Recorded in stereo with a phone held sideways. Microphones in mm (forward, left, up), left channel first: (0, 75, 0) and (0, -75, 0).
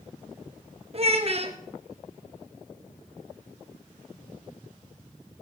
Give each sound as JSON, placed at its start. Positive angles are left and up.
{"t": 0.9, "sound": "a child speaking", "side_deg": -45, "distance_m": 0.9}